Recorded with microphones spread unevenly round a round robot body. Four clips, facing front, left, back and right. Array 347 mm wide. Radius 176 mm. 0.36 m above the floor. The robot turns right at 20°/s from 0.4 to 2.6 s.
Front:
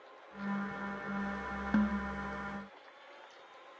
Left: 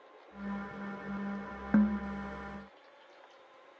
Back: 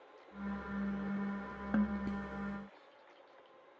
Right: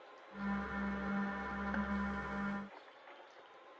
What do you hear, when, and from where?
1.7 s a snare drum: 70° left; by 2.0 s 80° left